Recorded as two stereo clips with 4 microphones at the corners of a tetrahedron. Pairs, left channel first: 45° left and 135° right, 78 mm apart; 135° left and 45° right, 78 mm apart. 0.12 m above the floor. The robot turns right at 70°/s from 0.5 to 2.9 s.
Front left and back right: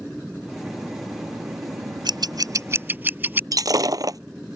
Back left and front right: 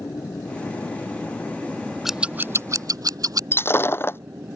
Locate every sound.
0.0 s an aircraft: 135° left; by 4.6 s 60° right
2.0 s scissors: 130° right; by 3.4 s 70° right
3.5 s breaking glass: 170° right